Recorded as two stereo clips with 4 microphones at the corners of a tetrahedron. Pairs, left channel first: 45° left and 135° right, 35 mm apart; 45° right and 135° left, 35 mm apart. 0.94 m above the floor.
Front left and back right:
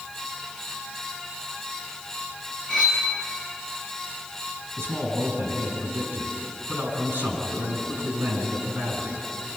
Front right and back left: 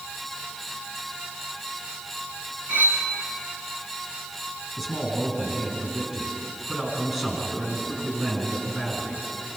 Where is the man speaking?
160° right, 8 m.